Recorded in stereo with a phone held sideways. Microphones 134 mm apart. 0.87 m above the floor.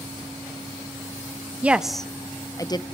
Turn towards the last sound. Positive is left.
turn(degrees=30)  # may be behind; listen again after turning